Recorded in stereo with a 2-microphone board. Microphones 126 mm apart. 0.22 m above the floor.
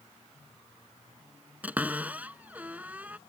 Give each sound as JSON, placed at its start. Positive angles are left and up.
{"t": 1.6, "sound": "a cupboard door", "side_deg": -15}